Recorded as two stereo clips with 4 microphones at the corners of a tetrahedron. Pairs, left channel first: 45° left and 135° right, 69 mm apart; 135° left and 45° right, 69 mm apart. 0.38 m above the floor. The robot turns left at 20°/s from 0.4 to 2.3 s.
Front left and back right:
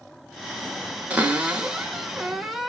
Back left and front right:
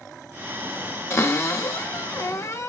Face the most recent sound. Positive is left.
turn(degrees=140)